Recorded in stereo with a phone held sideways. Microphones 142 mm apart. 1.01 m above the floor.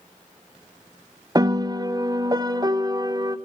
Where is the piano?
25° right (ahead or behind), 0.5 m.